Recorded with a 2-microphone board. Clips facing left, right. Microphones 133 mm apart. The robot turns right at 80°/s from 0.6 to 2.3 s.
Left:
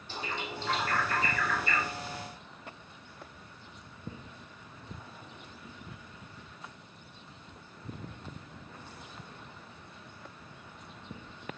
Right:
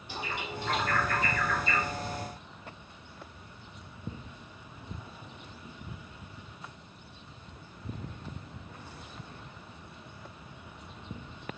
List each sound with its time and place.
0.1 s a bird: 15° right (ahead or behind), 4.5 m; by 1.9 s 75° left (ahead or behind), 4.5 m